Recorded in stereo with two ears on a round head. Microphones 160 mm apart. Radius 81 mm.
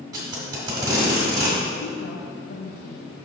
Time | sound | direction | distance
0.1 | tape being pulled | 20° right (ahead or behind) | 1.8 m
1.8 | a woman speaking | 75° left (ahead or behind) | 0.7 m